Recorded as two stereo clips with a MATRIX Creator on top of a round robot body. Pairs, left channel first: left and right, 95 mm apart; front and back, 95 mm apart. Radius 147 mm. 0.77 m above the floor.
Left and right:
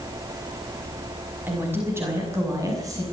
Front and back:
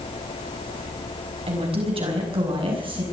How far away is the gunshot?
No gunshot in this recording.